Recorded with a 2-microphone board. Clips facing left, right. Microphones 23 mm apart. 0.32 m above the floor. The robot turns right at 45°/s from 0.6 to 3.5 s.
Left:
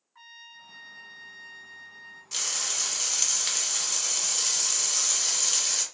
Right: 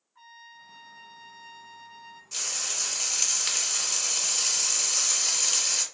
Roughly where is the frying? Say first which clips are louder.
Left 1 dB; behind left.